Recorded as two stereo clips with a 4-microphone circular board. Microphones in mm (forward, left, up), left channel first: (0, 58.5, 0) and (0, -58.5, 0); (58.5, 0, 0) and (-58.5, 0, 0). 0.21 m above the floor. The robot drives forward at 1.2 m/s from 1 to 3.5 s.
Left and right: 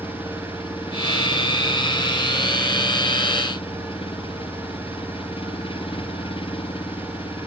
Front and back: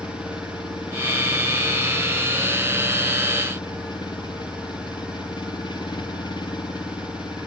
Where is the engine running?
45° left; by 7.5 s 50° left.